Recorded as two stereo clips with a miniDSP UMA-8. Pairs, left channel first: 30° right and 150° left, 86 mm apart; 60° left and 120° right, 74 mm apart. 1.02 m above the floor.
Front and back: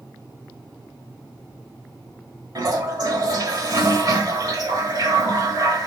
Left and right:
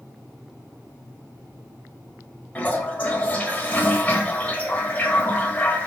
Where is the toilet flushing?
125° left, 1.2 m.